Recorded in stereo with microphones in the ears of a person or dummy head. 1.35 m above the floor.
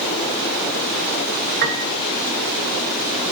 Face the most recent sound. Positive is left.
turn(degrees=-45)  # may be behind; listen again after turning